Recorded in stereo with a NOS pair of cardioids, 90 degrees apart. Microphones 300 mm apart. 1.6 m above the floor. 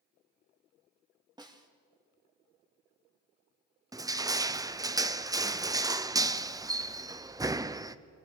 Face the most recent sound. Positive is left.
turn(degrees=-10)